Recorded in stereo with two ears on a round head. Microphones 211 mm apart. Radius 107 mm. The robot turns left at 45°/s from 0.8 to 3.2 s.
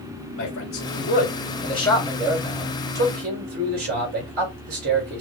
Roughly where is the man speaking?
Left.